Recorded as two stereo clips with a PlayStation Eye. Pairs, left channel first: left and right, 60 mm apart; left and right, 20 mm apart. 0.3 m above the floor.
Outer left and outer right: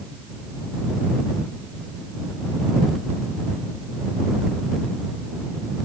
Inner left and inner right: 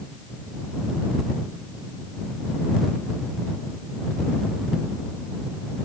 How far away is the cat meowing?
I don't hear a cat meowing.